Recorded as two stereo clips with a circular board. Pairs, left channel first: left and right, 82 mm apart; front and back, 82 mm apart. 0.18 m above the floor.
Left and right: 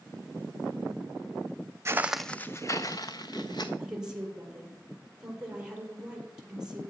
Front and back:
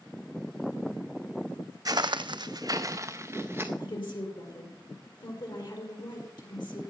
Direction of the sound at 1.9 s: 145° right.